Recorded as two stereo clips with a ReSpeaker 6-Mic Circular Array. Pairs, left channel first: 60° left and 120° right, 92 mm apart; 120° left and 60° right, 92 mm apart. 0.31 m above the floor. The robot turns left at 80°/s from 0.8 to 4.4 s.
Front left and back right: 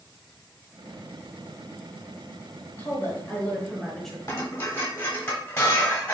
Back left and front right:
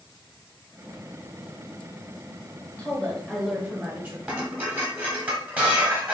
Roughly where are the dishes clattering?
Ahead.